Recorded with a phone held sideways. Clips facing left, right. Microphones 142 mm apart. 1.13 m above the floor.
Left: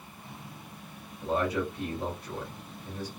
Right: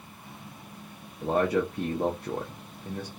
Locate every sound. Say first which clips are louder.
1.2 s a man speaking: right 4 dB; 55° right (ahead or behind), 0.7 m